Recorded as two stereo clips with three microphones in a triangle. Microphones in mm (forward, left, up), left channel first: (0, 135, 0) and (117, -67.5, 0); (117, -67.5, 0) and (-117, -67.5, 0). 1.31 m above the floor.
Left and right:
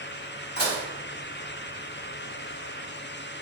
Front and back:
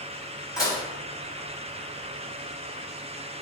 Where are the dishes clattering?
75° left, 5.5 m.